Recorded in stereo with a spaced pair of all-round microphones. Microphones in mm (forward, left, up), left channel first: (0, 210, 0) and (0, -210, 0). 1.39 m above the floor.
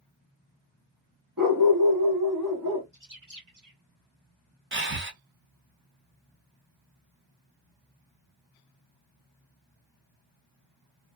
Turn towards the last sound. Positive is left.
turn(degrees=-25)  # may be behind; listen again after turning